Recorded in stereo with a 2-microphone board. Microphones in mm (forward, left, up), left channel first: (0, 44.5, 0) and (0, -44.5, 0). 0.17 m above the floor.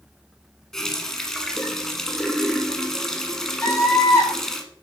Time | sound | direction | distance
0.7 | a running tap | 5° left (ahead or behind) | 1.2 m
3.6 | a scream | 25° left (ahead or behind) | 1.7 m